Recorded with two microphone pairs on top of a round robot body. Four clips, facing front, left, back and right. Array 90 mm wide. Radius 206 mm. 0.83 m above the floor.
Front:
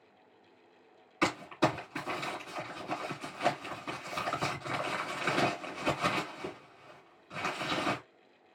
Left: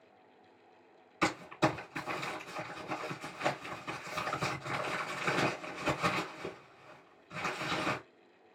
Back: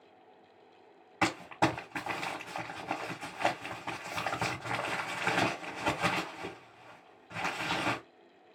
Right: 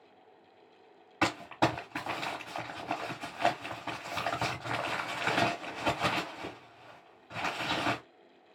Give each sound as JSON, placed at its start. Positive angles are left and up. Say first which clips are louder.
{"t": 1.2, "sound": "crumpling", "louder": "right 2 dB, even", "azimuth_deg": -130, "distance_m": 1.2}